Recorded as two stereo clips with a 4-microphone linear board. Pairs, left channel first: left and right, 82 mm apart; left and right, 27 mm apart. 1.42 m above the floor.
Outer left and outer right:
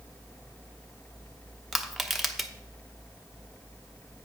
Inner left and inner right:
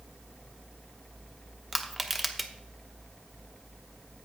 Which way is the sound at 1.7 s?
Centre (ahead or behind).